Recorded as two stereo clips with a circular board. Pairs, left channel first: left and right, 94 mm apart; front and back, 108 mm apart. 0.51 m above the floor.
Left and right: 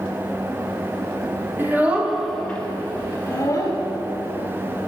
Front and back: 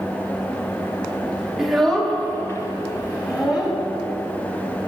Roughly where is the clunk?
I don't hear a clunk.